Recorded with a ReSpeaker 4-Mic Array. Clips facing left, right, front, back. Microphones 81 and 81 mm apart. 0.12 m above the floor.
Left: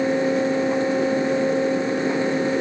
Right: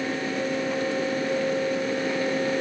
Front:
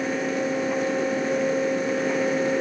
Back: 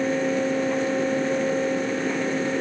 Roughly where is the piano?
I don't hear a piano.